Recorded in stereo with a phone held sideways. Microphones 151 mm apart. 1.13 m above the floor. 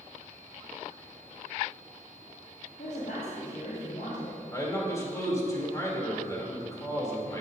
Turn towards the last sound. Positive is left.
turn(degrees=20)  # may be behind; listen again after turning